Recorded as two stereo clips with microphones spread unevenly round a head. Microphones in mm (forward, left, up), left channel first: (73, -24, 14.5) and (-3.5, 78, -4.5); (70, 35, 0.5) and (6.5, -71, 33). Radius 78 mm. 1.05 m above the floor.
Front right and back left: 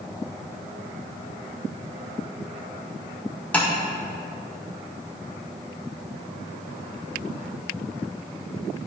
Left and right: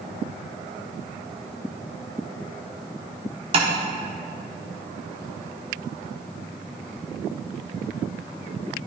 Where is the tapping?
125° right, 0.8 m.